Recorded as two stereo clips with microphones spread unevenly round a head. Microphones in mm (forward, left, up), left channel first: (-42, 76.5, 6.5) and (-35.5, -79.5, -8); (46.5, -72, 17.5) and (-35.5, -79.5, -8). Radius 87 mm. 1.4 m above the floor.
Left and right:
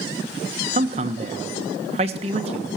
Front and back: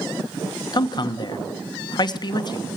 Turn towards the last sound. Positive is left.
turn(degrees=-30)